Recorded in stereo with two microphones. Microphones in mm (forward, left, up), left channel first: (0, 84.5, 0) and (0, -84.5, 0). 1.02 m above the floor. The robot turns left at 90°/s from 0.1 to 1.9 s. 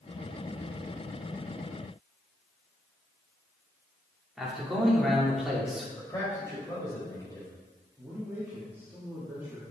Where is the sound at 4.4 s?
Centre (ahead or behind), 2.5 m.